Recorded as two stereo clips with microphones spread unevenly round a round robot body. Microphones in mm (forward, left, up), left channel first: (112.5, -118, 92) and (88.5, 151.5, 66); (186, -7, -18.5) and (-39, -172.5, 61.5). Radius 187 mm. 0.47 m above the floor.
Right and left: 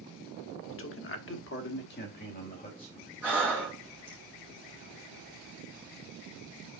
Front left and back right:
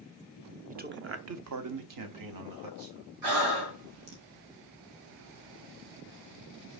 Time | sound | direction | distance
0.7 | a man speaking | 70° right | 0.9 m
3.2 | breathing | straight behind | 1.5 m